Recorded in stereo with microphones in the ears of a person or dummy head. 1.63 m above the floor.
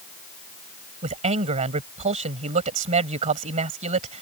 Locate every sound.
1.0 s a man speaking: 40° right (ahead or behind)